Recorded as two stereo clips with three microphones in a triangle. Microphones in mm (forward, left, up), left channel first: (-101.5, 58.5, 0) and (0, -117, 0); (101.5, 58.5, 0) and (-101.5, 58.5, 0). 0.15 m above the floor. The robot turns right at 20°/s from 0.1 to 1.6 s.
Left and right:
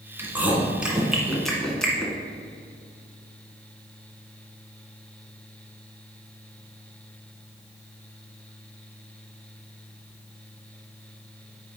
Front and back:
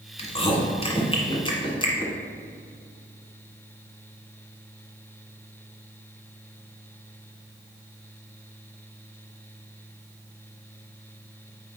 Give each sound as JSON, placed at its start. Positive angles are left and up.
{"t": 0.2, "sound": "chewing", "azimuth_deg": 10, "distance_m": 1.5}